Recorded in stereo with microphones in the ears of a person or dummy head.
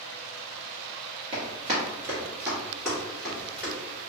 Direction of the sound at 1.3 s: 30° right (ahead or behind).